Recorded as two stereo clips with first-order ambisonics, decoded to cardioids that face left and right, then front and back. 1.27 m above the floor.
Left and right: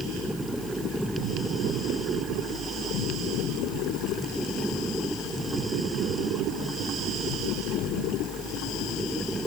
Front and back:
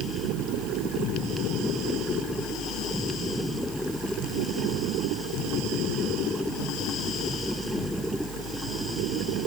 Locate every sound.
Only background noise.